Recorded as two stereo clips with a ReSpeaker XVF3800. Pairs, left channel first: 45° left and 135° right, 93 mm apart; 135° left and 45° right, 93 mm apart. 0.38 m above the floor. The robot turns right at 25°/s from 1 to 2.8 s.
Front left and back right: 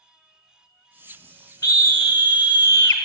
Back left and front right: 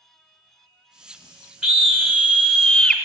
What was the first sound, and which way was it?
A scream, 45° left.